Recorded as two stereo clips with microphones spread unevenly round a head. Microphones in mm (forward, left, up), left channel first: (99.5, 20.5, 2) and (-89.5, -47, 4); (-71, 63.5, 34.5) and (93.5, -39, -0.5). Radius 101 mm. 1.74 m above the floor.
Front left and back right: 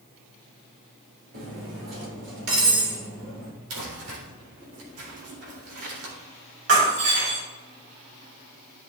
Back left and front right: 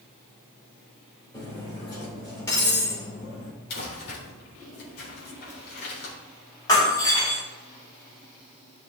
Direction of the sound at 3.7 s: 175° right.